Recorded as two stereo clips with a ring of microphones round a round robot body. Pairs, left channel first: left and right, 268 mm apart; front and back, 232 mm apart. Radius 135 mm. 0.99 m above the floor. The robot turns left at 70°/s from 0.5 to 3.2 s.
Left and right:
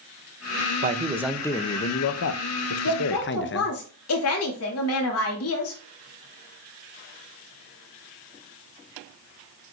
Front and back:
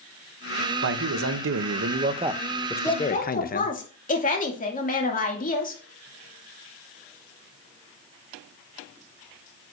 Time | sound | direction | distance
0.8 | a man speaking | 145° right | 0.8 m
2.8 | a woman speaking | 80° left | 2.5 m